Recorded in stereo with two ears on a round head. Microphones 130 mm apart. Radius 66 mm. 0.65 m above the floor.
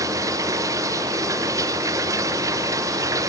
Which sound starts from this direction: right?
Running water, at 0.0 s.